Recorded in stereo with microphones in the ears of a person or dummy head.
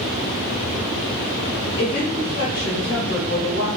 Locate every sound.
1.8 s a woman speaking: 65° left (ahead or behind), 2 m